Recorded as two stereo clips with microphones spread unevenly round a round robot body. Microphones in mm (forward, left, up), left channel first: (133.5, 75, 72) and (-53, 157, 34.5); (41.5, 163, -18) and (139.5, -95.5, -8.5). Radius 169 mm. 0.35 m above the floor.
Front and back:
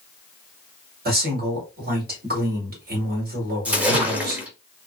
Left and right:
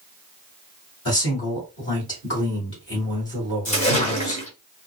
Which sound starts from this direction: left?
A splash, at 3.6 s.